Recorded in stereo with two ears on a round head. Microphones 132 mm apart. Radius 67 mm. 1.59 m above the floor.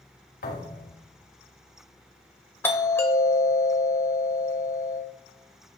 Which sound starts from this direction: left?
A thud, at 0.4 s.